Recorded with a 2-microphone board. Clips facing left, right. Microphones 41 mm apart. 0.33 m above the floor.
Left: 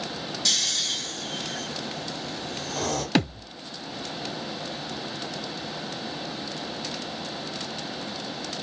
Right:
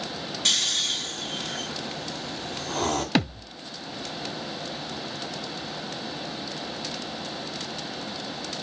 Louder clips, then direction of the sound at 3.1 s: Left 1 dB; 5° right (ahead or behind).